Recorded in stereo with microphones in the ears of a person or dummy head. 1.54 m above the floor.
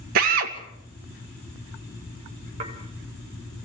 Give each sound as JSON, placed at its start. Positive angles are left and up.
{"t": 0.1, "sound": "a drill", "side_deg": -60, "distance_m": 2.5}
{"t": 2.6, "sound": "dishes clattering", "side_deg": -45, "distance_m": 4.5}